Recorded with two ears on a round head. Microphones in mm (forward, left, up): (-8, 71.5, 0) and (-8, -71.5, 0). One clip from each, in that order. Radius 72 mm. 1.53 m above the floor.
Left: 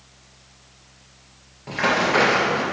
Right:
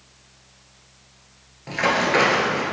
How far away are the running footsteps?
About 1.8 m.